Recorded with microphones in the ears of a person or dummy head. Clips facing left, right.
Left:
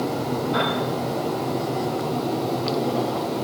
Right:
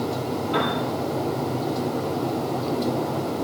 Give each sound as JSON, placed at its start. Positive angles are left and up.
{"t": 0.5, "sound": "a piano", "side_deg": -45, "distance_m": 9.5}